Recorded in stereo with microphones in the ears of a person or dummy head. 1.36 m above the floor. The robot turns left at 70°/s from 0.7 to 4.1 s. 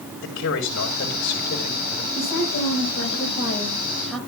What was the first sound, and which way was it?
A man speaking, 105° left.